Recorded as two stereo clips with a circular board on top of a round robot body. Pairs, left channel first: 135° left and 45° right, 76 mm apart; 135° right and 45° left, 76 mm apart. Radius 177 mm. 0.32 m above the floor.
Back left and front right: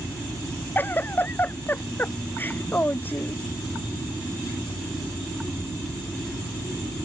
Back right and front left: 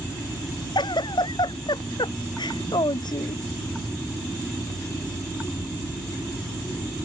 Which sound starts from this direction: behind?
A giggle, at 0.8 s.